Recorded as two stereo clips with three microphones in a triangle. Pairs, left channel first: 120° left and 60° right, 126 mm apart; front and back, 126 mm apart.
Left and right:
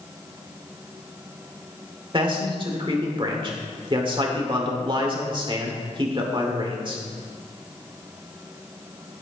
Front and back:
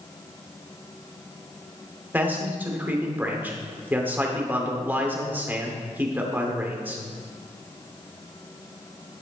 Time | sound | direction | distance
2.1 | a man speaking | 105° right | 2.0 m